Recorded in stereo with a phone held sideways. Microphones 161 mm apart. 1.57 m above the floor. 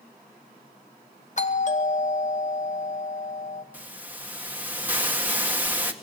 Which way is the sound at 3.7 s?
10° right (ahead or behind).